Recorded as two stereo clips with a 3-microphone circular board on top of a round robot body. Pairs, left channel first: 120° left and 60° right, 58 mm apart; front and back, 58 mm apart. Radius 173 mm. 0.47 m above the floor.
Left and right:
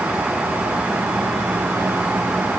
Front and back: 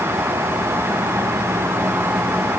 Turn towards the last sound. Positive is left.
No sound to turn to.